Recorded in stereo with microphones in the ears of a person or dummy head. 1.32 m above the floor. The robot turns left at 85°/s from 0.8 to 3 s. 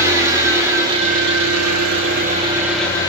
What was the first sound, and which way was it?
An engine running, 15° right.